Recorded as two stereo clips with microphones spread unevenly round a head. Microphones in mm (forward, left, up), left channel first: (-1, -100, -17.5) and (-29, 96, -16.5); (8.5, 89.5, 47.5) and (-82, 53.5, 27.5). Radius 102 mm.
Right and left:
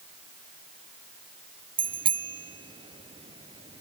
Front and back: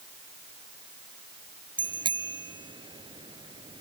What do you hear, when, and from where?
1.8 s a bicycle bell: 165° left